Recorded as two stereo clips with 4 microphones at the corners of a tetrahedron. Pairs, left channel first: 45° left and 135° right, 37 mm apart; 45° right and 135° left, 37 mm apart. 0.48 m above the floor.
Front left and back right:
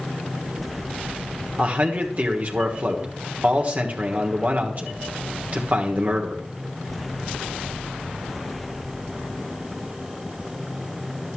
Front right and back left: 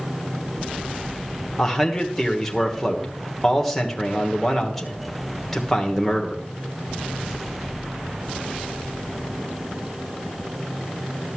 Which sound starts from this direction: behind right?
A man speaking, at 1.6 s.